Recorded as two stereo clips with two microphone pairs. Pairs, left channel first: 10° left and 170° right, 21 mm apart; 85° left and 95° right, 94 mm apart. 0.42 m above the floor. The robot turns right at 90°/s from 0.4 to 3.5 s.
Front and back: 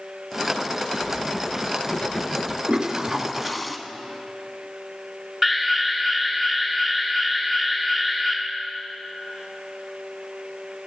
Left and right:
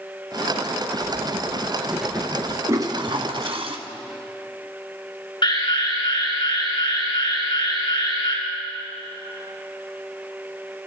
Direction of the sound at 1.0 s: 100° right.